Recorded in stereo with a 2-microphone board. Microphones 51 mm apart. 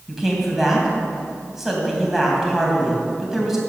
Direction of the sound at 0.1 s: 5° right (ahead or behind).